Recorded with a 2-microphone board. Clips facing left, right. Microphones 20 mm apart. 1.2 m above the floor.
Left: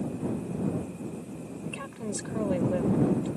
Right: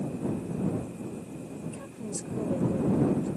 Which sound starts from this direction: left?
A woman speaking, at 1.7 s.